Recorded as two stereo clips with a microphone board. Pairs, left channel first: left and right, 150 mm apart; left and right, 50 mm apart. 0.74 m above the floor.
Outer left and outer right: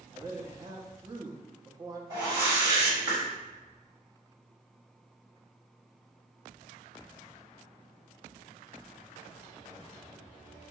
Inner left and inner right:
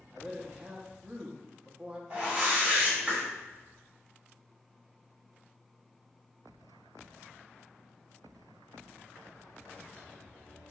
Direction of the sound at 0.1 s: 25° right (ahead or behind).